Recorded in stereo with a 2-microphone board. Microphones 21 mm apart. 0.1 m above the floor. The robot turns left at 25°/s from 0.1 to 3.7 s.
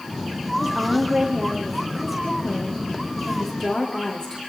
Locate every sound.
0.6 s a woman speaking: 145° right, 7.5 m; by 4.4 s 140° left, 7.5 m